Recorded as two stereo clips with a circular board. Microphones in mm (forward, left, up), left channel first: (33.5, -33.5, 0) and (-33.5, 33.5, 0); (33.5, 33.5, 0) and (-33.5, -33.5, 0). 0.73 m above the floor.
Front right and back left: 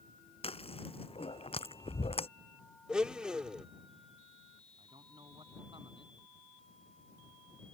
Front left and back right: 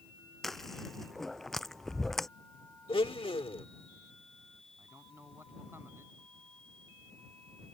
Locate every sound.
0.4 s chewing: 45° right
2.9 s a blender: 55° left
4.8 s a man speaking: 160° left